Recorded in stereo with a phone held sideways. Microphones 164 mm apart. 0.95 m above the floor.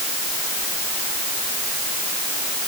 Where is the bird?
I don't hear a bird.